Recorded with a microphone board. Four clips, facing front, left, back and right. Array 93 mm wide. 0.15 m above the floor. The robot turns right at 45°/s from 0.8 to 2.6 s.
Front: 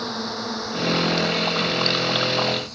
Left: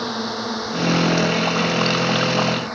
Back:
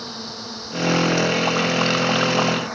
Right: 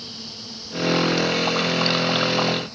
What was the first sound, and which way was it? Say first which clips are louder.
A drone: left 15 dB, front 6 dB; 65° left.